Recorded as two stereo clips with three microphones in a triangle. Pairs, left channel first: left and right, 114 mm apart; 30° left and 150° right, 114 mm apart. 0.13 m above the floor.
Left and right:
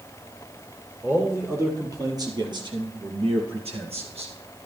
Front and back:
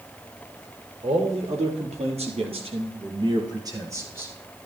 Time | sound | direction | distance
1.0 | a man speaking | 160° right | 4.5 m